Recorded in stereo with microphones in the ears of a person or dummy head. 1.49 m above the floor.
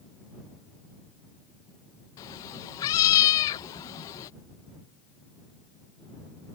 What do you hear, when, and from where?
2.2 s a cat meowing: 20° left (ahead or behind)